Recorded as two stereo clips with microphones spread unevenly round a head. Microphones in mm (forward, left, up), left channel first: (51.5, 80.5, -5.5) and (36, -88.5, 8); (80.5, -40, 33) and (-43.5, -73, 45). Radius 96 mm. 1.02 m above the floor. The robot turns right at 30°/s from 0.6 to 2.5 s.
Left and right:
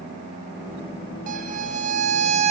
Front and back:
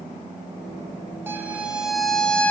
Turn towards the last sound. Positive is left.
turn(degrees=-65)